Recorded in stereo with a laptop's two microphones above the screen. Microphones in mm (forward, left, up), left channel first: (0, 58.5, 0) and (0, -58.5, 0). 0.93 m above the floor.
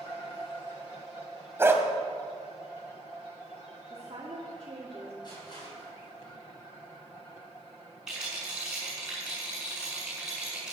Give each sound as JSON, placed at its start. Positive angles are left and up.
{"t": 1.6, "sound": "a dog barking", "side_deg": -20, "distance_m": 2.0}
{"t": 3.9, "sound": "a woman speaking", "side_deg": -45, "distance_m": 1.9}
{"t": 5.2, "sound": "crushing", "side_deg": 40, "distance_m": 6.5}
{"t": 8.1, "sound": "a rattle", "side_deg": -5, "distance_m": 6.0}